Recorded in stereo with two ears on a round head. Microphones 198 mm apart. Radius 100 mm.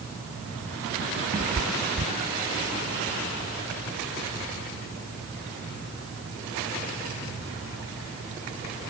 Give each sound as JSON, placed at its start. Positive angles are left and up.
{"t": 1.3, "sound": "a cat meowing", "side_deg": -30}